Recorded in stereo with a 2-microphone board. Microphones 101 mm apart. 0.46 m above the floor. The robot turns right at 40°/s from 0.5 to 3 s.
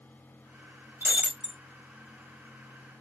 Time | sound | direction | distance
1.0 | breaking glass | 20° right (ahead or behind) | 1.4 m